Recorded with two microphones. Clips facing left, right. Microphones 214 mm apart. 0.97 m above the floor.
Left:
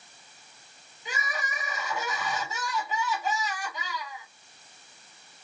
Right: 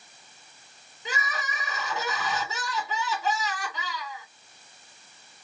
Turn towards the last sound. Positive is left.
turn(degrees=-75)  # may be behind; listen again after turning